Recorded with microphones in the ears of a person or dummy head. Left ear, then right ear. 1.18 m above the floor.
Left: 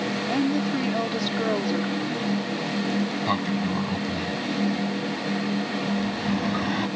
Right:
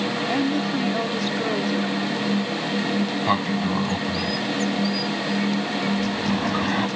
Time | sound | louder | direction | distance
0.3 | a woman speaking | even | 10° right (ahead or behind) | ?
3.3 | a sliding door | right 5 dB | 20° right (ahead or behind) | ?